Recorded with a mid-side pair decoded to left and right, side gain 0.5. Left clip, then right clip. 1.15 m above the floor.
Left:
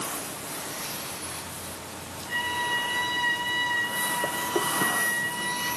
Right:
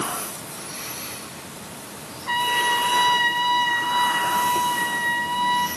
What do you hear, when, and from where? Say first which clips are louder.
2.3 s a trumpet: right 7 dB; 65° right, 7.5 m